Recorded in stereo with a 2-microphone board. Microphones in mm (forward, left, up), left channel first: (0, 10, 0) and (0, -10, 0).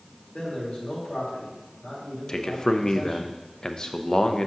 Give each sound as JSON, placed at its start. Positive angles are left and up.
{"t": 0.3, "sound": "a man speaking", "side_deg": 70, "distance_m": 3.5}
{"t": 2.3, "sound": "a man speaking", "side_deg": 40, "distance_m": 0.6}